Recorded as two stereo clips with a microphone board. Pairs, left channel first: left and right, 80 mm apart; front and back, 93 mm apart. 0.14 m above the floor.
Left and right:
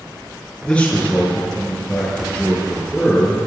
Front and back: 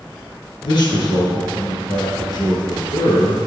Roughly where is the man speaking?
Ahead.